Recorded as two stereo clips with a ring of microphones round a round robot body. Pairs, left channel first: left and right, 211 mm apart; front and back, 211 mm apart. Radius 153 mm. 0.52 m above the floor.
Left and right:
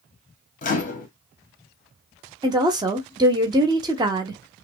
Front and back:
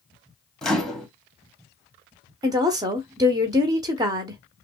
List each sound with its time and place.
0.6 s a microwave: 85° left, 1.0 m
2.4 s a woman speaking: 135° right, 0.6 m